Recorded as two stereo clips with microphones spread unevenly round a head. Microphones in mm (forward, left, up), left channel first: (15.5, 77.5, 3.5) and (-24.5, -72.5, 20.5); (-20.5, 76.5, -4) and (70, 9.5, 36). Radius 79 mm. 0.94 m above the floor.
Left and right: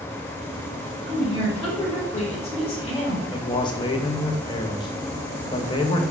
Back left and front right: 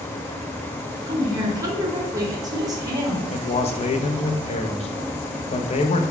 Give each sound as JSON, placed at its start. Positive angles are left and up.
{"t": 1.1, "sound": "a woman speaking", "azimuth_deg": 25, "distance_m": 1.5}
{"t": 3.3, "sound": "a man speaking", "azimuth_deg": 135, "distance_m": 0.6}